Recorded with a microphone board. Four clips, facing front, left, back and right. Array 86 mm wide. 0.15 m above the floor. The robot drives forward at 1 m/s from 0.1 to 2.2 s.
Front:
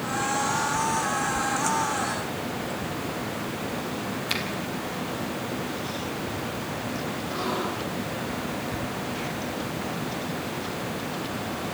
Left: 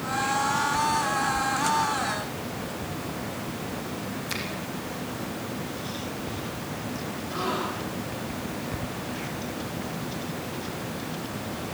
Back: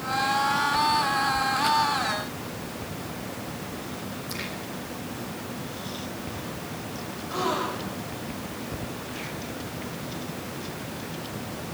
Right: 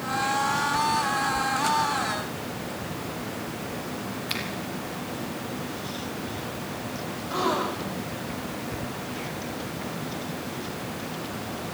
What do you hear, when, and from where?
4.3 s a finger snap: 25° right, 4.5 m
7.3 s a gasp: 115° right, 4.5 m